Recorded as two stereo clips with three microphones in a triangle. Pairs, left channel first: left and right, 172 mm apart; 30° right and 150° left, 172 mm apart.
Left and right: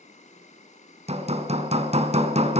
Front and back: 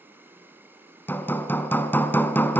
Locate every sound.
0.0 s an insect: 75° left, 1.8 m
1.1 s hammering: 100° right, 1.2 m